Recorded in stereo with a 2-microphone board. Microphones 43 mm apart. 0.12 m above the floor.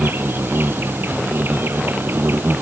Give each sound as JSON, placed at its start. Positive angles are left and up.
{"t": 0.0, "sound": "an insect", "side_deg": -60}